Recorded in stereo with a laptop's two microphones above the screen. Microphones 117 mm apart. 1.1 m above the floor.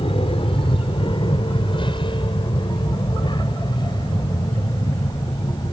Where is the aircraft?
50° left (ahead or behind); by 5.7 s 35° left (ahead or behind).